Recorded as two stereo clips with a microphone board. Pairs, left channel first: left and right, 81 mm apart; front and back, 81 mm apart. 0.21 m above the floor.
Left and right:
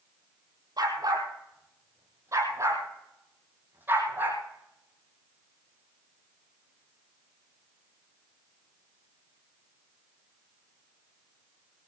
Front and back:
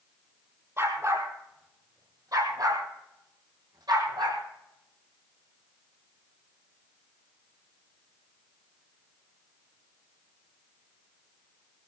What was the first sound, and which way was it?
A dog barking, 125° right.